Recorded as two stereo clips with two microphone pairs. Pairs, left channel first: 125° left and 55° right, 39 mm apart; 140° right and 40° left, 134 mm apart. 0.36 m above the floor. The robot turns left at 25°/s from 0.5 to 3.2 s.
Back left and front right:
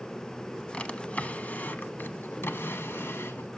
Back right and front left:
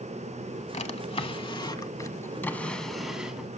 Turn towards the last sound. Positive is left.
turn(degrees=125)